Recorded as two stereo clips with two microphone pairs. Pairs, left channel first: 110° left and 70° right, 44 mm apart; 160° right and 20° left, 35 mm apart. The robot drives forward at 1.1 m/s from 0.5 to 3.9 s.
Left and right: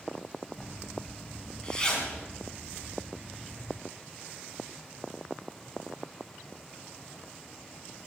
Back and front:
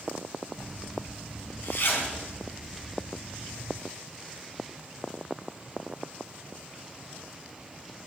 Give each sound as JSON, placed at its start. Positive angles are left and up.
{"t": 0.6, "sound": "a zipper", "azimuth_deg": 180, "distance_m": 2.0}